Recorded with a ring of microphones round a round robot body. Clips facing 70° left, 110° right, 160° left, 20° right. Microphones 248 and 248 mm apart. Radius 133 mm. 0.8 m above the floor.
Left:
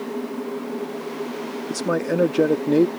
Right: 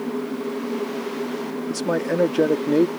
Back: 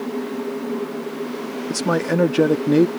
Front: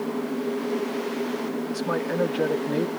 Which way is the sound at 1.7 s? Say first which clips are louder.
Left 1 dB, back 10 dB; 150° left.